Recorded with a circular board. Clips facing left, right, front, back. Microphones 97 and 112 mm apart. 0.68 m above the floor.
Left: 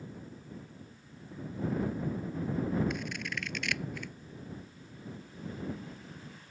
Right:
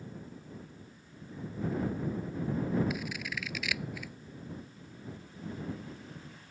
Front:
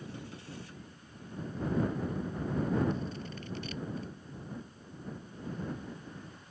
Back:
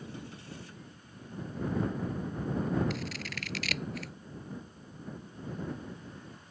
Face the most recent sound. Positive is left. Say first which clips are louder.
# even, front 1 dB
turn(degrees=-175)